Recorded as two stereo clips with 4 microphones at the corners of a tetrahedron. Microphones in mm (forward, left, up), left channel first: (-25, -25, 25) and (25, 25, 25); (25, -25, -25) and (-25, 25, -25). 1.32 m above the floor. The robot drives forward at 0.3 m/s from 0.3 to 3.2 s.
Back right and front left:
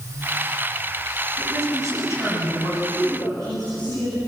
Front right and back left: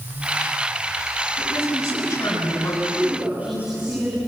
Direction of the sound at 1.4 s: 85° right.